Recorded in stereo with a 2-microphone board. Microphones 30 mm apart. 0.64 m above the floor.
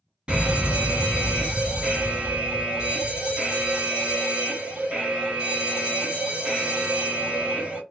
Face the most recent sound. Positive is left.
turn(degrees=-35)  # may be behind; listen again after turning